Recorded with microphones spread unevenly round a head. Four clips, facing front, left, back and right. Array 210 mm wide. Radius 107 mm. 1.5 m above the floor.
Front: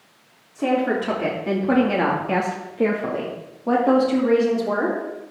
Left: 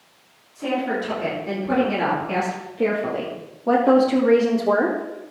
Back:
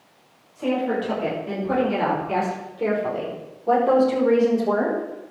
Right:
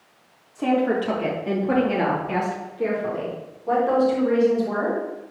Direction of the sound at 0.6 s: 35° right.